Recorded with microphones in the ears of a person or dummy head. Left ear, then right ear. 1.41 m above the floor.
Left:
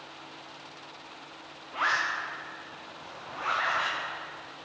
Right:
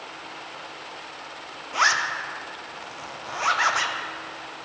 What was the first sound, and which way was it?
A zipper, 80° right.